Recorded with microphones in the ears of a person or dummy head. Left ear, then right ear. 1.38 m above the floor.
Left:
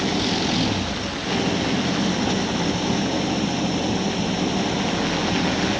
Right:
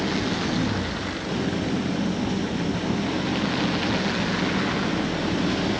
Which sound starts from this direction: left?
An engine running, at 0.0 s.